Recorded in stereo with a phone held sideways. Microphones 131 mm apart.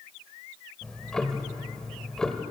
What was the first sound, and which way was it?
Ticking, 5° left (ahead or behind).